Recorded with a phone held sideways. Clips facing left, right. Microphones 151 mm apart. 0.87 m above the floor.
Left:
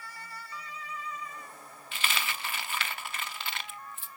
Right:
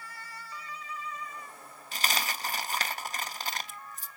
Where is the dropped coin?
40° right (ahead or behind), 0.6 m.